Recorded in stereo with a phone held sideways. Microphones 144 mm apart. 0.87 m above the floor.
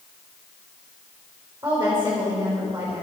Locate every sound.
1.6 s a woman speaking: 15° right (ahead or behind), 4 m